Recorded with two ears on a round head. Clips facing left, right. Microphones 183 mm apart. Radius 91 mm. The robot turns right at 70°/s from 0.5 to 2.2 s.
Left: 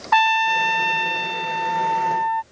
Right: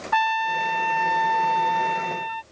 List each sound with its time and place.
0.1 s a trumpet: 95° left; by 2.4 s 150° right